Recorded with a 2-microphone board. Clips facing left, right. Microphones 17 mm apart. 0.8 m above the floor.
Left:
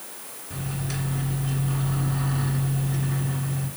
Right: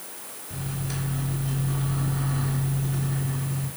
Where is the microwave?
5° left (ahead or behind), 2.5 m.